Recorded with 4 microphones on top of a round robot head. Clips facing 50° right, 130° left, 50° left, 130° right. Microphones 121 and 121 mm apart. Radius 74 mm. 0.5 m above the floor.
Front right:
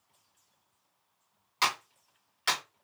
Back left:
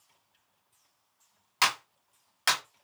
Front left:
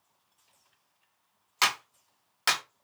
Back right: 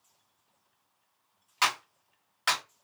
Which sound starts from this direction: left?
A clap, at 1.6 s.